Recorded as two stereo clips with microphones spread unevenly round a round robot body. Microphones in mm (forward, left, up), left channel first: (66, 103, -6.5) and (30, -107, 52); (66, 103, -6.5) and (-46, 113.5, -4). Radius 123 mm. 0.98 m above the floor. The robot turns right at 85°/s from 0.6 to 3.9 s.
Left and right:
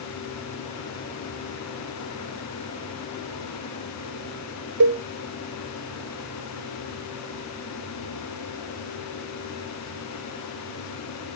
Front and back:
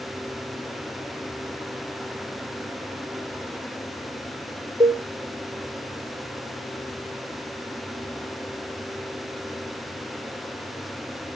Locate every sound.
4.8 s a cowbell: 125° right, 0.8 m